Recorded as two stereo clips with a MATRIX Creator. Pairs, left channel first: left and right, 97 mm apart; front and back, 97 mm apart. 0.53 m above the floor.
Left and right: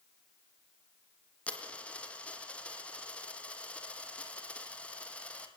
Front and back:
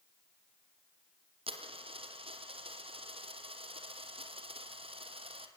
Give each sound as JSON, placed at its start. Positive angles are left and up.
{"t": 1.5, "sound": "a dropped coin", "azimuth_deg": 165, "distance_m": 3.0}